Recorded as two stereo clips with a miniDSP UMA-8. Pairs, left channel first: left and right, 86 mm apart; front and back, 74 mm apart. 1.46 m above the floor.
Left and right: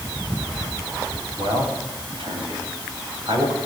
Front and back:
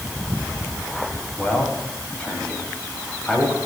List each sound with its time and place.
1.4 s a man speaking: 70° right, 7.5 m; by 3.6 s 85° right, 7 m